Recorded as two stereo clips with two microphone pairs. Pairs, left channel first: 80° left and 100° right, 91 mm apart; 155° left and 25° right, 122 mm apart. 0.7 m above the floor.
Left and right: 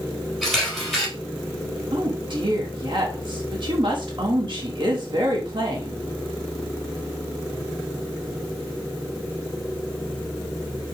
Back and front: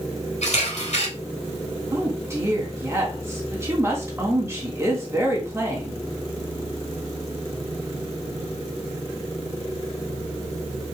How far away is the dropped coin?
I don't hear a dropped coin.